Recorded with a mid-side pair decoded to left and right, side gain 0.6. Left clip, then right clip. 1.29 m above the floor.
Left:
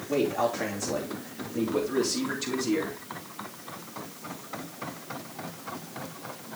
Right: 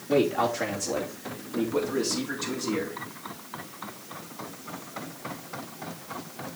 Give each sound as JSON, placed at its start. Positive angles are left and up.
{"t": 0.1, "sound": "a man speaking", "azimuth_deg": -20, "distance_m": 3.0}